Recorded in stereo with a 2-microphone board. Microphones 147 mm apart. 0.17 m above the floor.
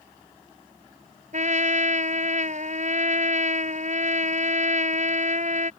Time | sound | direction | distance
1.3 | a trumpet | 55° right (ahead or behind) | ?